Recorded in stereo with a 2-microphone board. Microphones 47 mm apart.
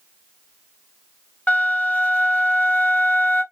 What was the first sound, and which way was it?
A flute, 35° left (ahead or behind).